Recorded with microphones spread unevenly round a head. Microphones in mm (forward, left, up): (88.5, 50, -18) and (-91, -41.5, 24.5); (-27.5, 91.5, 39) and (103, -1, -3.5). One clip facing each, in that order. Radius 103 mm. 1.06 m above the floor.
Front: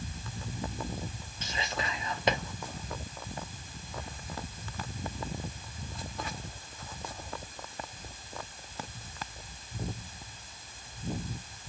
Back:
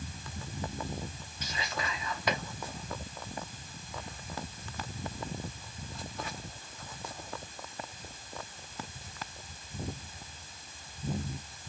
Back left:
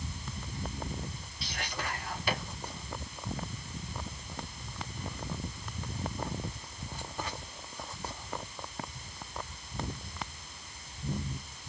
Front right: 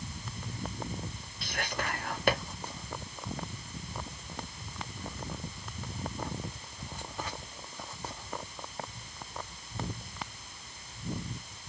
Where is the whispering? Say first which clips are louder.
Front 1 dB, front right 3 dB; 30° right, 1.4 m.